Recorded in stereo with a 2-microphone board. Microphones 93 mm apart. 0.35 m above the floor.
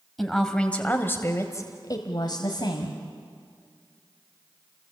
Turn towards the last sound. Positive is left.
turn(degrees=65)  # may be behind; listen again after turning